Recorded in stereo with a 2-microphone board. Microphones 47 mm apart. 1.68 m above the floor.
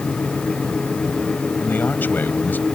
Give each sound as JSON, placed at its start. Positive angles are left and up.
{"t": 1.6, "sound": "a man speaking", "side_deg": 45}